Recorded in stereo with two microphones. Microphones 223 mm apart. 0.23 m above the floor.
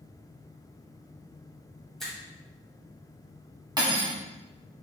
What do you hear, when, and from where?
2.0 s a finger snap: centre (ahead or behind), 1.4 m
3.8 s cutlery clinking: 20° right (ahead or behind), 0.9 m